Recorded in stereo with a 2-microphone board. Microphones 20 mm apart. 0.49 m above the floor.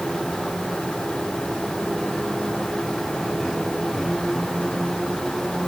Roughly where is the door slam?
No door slam in this recording.